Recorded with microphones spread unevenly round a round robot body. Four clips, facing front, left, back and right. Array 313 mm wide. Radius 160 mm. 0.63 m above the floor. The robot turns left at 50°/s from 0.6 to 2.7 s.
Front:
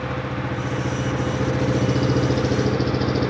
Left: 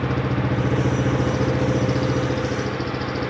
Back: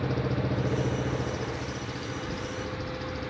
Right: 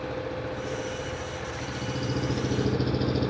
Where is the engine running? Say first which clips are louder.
Left 8 dB, front 2 dB; 100° left; by 3.3 s 5° right.